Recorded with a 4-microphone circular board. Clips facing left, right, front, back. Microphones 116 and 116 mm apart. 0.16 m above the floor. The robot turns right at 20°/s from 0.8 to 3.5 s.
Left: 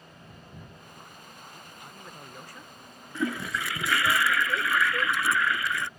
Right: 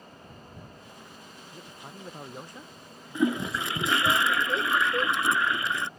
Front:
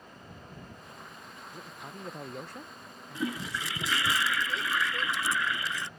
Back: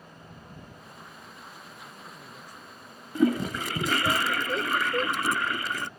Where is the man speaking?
40° right; by 4.2 s straight ahead.